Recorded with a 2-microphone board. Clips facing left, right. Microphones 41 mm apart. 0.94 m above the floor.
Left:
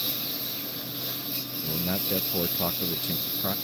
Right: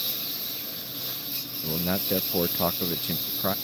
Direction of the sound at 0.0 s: 5° left (ahead or behind).